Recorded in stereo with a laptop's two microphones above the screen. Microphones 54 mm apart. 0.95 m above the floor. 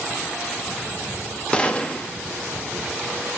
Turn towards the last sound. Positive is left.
turn(degrees=20)  # may be behind; listen again after turning